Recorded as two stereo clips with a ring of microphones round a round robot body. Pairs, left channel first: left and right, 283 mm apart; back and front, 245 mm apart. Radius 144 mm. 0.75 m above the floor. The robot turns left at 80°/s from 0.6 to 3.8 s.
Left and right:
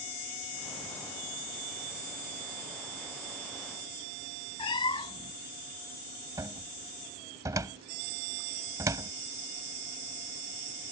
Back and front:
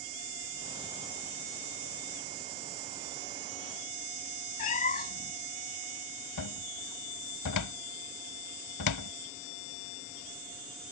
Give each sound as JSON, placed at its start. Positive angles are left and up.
{"t": 4.6, "sound": "a cat meowing", "azimuth_deg": 150}
{"t": 6.4, "sound": "a cupboard door", "azimuth_deg": -170}